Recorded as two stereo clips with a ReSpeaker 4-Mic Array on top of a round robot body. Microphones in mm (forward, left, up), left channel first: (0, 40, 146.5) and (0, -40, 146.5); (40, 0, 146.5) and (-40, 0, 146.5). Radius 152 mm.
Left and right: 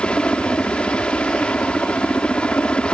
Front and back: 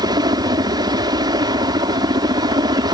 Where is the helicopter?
165° left.